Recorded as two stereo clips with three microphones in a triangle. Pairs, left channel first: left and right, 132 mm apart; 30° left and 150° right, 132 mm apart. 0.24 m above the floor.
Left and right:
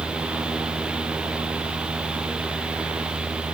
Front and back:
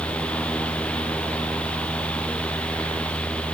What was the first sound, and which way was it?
Only background noise.